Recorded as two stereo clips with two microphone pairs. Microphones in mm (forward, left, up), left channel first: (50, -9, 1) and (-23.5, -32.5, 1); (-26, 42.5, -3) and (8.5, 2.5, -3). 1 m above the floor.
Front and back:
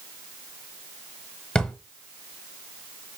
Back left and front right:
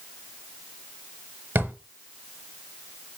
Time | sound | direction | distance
1.6 | a drawer | 50° right | 0.8 m